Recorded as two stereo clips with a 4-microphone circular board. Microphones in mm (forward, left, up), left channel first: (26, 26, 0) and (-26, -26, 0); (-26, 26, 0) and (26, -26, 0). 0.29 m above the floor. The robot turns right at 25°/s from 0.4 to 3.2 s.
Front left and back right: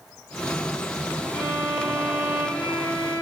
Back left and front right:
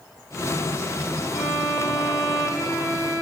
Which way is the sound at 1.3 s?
125° left.